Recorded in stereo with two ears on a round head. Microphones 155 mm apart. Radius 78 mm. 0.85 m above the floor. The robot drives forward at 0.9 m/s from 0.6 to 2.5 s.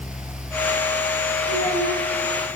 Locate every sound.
1.5 s a child speaking: 85° right, 4.5 m; by 2.0 s 90° right, 4.5 m